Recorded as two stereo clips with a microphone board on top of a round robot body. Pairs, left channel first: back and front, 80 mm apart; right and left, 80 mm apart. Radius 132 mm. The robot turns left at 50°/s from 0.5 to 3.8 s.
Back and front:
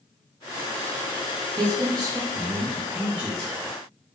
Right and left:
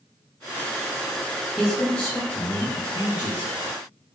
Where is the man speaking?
5° left, 0.9 m; by 3.5 s 90° right, 0.9 m.